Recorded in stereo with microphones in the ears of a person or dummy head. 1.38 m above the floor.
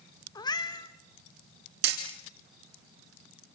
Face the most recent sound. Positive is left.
turn(degrees=-65)  # may be behind; listen again after turning